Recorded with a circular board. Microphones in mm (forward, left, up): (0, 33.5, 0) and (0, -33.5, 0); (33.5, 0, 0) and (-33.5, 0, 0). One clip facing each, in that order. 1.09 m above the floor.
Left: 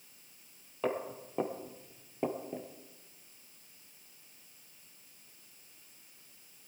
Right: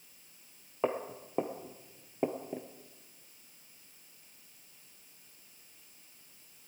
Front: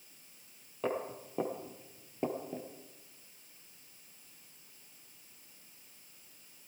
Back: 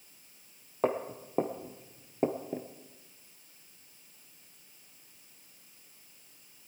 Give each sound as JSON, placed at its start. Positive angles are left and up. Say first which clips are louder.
{"t": 0.8, "sound": "footsteps", "louder": "right 1 dB, back 5 dB", "azimuth_deg": -150, "distance_m": 1.7}